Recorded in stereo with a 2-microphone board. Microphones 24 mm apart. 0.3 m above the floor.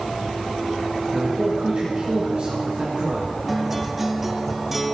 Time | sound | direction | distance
1.1 | a man speaking | 55° right (ahead or behind) | 3 m
3.5 | a guitar | 10° right (ahead or behind) | 0.7 m